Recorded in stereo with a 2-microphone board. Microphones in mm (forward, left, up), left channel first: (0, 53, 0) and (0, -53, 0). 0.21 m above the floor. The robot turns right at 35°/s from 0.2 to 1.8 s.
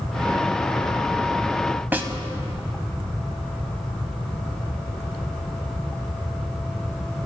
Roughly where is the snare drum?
Centre.